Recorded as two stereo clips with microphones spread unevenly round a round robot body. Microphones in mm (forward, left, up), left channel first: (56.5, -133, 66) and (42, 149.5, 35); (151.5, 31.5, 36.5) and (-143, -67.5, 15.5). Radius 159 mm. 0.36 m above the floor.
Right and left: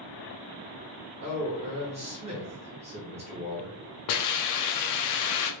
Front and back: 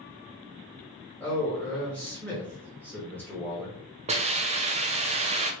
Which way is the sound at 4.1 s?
100° right.